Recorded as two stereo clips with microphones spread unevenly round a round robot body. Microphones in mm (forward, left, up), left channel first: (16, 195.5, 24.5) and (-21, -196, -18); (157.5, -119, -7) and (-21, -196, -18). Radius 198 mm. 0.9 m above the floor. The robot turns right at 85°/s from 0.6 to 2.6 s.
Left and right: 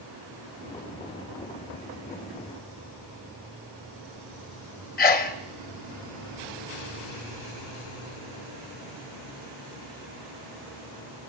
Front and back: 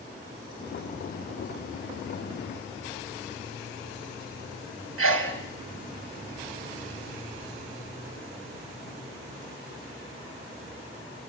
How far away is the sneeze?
About 1.6 m.